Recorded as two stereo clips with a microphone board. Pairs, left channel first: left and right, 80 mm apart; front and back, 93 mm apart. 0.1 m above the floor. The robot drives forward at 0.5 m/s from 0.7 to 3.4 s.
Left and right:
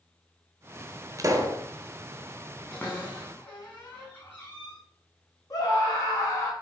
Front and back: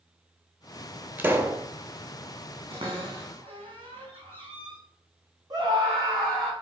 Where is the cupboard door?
155° left, 5 m.